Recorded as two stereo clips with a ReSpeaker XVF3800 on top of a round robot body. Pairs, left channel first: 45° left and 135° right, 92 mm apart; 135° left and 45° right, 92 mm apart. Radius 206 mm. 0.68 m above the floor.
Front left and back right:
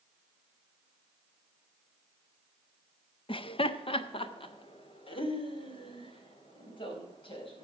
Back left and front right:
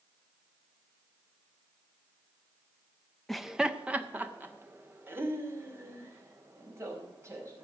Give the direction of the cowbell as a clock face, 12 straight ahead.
I don't hear a cowbell.